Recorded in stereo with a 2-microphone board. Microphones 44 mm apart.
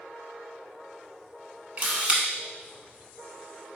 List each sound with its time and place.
1.8 s a camera shutter: 35° right (ahead or behind), 1.0 m